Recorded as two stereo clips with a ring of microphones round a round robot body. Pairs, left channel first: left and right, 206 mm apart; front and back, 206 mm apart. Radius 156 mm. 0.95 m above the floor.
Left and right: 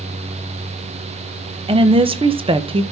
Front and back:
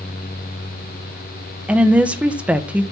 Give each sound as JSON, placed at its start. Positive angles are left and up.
{"t": 1.7, "sound": "a woman speaking", "azimuth_deg": -105, "distance_m": 0.8}